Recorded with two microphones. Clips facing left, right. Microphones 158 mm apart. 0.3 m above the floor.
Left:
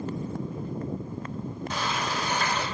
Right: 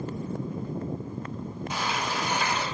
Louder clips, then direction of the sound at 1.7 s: Even; 10° right (ahead or behind).